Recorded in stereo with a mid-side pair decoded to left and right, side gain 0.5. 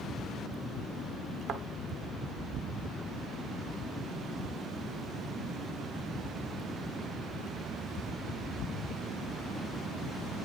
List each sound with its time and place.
1.5 s a thud: 60° right, 1.0 m